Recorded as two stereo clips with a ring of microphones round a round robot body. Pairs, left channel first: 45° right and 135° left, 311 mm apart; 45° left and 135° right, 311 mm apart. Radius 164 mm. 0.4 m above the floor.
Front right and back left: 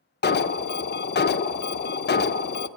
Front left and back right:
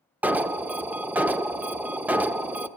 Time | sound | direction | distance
0.2 | an alarm | 55° right | 0.5 m